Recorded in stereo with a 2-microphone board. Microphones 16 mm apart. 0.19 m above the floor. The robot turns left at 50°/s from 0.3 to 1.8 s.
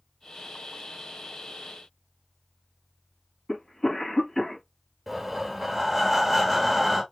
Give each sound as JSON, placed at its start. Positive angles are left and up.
{"t": 3.5, "sound": "a cough", "side_deg": 35, "distance_m": 1.9}
{"t": 5.1, "sound": "breathing", "side_deg": -15, "distance_m": 1.0}